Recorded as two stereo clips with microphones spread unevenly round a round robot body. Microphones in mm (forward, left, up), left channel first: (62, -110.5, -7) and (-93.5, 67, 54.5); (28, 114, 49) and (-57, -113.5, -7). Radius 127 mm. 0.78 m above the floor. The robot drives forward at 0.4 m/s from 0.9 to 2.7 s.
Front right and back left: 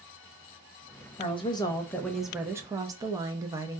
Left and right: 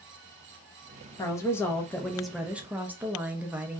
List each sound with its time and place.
1.2 s a woman speaking: 20° right, 0.7 m; by 3.8 s 140° right, 0.6 m